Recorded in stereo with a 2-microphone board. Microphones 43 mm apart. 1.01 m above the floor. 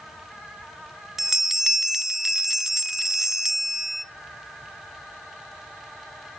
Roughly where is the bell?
Centre.